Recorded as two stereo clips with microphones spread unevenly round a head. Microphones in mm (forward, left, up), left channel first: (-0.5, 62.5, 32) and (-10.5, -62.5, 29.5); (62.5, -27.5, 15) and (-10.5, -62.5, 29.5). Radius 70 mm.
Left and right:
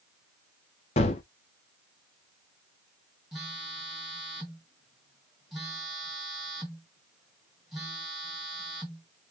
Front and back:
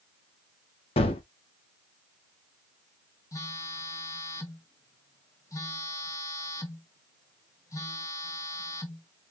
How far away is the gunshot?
About 0.7 m.